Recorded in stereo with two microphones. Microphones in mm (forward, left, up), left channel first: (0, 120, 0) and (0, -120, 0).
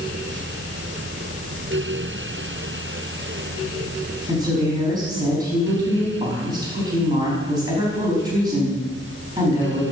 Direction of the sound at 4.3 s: 15° right (ahead or behind).